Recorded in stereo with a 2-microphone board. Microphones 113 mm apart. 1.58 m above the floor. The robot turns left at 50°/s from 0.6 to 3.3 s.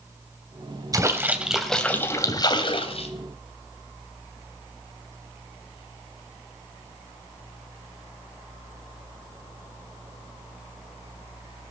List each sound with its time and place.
0.9 s a splash: 145° right, 2.5 m; by 3.1 s 105° left, 2.5 m